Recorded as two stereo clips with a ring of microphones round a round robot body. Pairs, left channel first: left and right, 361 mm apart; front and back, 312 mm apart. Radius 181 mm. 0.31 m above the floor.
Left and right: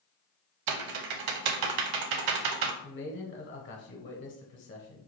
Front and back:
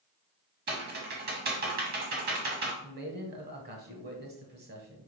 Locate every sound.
0.7 s typing on a keyboard: 115° right, 0.6 m
2.8 s a man speaking: 135° left, 1.2 m